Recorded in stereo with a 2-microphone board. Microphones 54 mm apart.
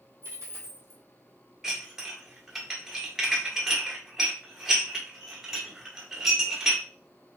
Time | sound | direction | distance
0.2 | a dropped coin | 50° right (ahead or behind) | 1.3 m
1.6 | dishes clattering | 10° right (ahead or behind) | 1.1 m